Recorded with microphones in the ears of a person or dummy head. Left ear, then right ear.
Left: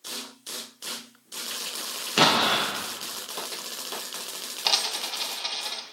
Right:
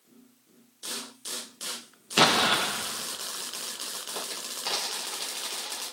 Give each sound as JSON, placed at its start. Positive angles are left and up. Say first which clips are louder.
{"t": 2.2, "sound": "an explosion", "louder": "left 1 dB", "side_deg": -5, "distance_m": 0.9}
{"t": 4.7, "sound": "a dropped coin", "louder": "left 7 dB", "side_deg": 35, "distance_m": 1.4}